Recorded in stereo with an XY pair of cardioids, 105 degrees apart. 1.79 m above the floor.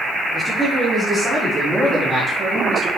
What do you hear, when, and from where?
0.3 s a man speaking: straight ahead, 5 m; by 2.9 s 40° right, 4 m